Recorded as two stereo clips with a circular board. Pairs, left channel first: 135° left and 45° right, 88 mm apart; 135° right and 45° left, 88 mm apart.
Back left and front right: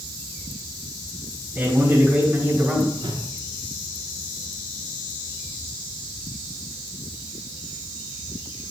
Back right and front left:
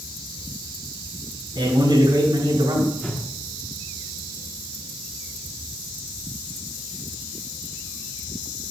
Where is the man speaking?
10° left, 4 m.